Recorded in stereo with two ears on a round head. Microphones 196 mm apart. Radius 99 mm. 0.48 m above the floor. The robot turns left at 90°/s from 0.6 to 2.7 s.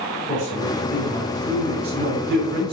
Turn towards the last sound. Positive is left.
turn(degrees=-150)